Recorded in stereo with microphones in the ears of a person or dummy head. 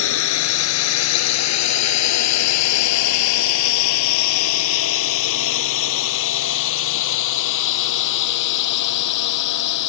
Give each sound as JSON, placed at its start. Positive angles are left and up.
{"t": 0.0, "sound": "a drone", "side_deg": 70}